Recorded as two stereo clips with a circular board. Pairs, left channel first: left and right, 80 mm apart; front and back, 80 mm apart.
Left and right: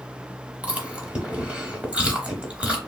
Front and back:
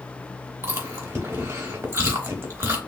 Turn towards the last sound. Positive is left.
turn(degrees=-155)